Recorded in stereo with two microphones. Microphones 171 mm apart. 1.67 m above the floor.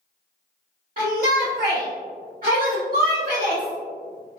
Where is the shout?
55° right (ahead or behind), 0.8 m.